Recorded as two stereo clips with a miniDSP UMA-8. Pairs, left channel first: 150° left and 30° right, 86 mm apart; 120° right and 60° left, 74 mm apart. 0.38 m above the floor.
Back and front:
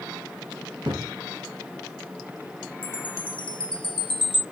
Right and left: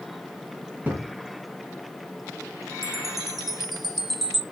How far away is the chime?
About 0.7 m.